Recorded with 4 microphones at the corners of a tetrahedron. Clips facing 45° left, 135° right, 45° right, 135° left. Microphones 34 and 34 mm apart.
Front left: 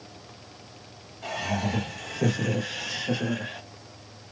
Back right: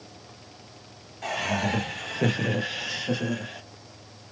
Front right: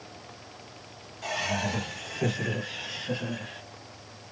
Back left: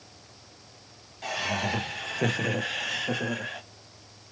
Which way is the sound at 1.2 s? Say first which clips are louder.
Back right 2 dB, even; 155° right.